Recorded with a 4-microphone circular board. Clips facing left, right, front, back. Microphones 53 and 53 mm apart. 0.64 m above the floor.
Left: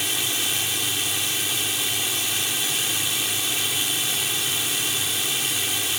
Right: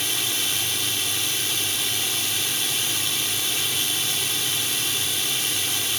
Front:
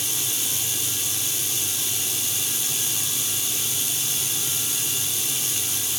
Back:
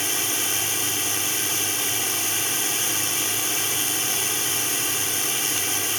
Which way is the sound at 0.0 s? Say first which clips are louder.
Left 1 dB, back 5 dB; 170° left.